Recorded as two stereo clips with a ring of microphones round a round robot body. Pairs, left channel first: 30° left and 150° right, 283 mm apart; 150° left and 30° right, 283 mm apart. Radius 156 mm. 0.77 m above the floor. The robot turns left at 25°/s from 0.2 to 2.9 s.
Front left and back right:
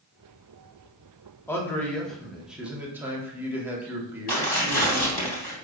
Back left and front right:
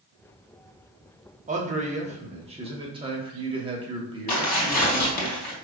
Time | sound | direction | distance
1.5 | a man speaking | 40° right | 1.0 m
4.3 | tearing paper | 90° left | 2 m